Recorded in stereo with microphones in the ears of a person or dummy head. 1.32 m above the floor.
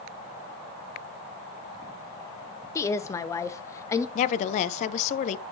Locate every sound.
2.8 s a woman speaking: 15° left (ahead or behind), 0.6 m
4.2 s a woman speaking: 40° left (ahead or behind), 0.6 m